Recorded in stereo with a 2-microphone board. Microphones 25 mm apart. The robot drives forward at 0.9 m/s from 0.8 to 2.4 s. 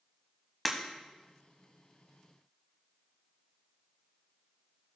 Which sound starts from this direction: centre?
Breaking glass, at 0.7 s.